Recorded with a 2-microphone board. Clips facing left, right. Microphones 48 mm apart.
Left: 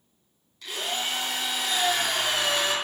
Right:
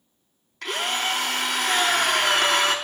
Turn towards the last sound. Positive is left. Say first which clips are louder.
# right 5 dB
turn(degrees=-60)  # may be behind; listen again after turning